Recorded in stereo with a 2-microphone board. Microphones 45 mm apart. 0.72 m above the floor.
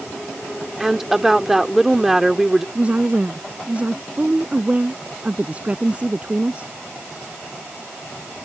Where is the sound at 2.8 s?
30° right (ahead or behind).